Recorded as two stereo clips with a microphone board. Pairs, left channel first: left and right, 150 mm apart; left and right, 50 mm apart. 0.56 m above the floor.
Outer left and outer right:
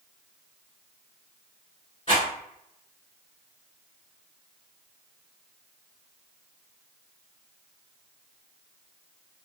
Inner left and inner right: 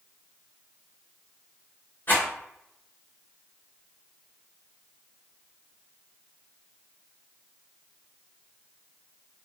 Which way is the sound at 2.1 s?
40° left (ahead or behind).